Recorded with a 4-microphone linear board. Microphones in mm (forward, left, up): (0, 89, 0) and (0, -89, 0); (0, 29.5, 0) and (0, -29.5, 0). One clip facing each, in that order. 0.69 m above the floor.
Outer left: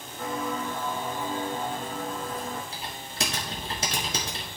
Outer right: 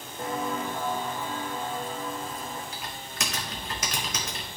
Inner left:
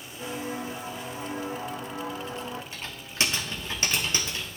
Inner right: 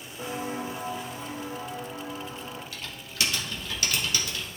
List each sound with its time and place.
0.2 s footsteps: 30° right (ahead or behind), 1.8 m; by 2.6 s 70° left (ahead or behind), 2.0 m
2.7 s typing on a keyboard: 30° left (ahead or behind), 1.5 m